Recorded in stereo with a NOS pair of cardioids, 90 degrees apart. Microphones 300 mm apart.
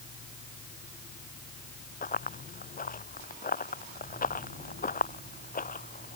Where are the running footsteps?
30° left.